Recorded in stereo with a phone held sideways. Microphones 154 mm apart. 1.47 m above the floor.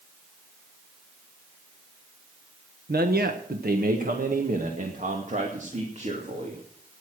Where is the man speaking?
85° right, 1.3 m; by 6.6 s 45° right (ahead or behind), 3 m.